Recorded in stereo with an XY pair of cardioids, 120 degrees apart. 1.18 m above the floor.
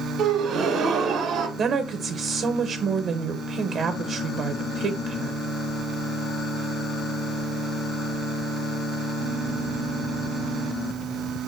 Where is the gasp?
60° right, 0.8 m.